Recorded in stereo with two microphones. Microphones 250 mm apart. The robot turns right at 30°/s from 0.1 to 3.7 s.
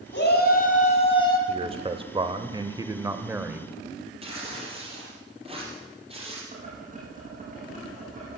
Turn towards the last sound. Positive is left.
turn(degrees=-35)  # may be behind; listen again after turning